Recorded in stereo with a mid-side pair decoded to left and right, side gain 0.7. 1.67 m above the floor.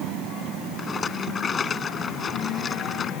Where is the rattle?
30° left.